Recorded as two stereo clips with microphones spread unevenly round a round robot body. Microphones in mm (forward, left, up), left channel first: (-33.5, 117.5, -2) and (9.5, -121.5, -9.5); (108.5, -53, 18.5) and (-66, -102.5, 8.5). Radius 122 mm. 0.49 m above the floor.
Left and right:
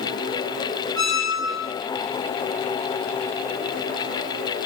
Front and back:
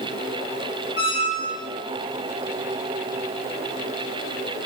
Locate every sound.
0.9 s a squeak: 135° right, 0.9 m